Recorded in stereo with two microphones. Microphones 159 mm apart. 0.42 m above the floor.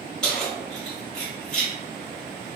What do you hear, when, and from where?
0.2 s keys jangling: 5° left (ahead or behind), 1.5 m